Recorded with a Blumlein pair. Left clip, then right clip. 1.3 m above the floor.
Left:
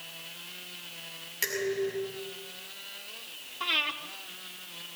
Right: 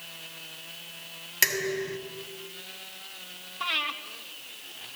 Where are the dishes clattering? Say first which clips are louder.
Right 3 dB; 65° right, 6 m.